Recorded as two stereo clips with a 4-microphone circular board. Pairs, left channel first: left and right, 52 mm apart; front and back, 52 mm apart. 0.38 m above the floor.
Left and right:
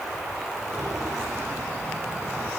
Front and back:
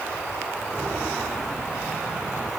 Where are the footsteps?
75° right, 4 m; by 2.5 s 100° right, 5.5 m.